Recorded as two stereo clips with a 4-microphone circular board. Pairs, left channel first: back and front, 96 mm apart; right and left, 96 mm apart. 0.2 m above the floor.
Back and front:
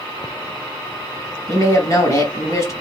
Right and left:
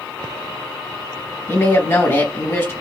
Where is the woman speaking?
145° right, 1.6 m.